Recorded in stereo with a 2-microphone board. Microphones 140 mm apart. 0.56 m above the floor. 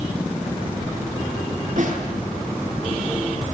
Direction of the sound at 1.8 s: 60° right (ahead or behind).